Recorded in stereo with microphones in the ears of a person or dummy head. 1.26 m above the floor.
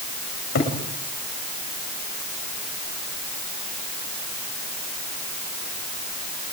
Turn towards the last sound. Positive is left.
turn(degrees=65)  # may be behind; listen again after turning